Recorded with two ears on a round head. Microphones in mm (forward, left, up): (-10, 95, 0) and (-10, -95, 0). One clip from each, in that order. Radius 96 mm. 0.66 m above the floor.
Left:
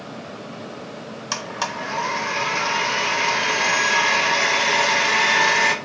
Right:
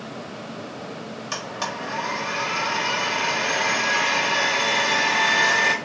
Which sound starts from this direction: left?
A blender, at 1.3 s.